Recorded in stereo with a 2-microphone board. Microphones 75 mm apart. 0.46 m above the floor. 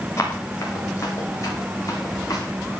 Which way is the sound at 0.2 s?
35° left (ahead or behind).